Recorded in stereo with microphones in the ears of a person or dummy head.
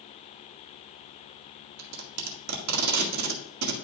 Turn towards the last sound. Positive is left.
turn(degrees=-80)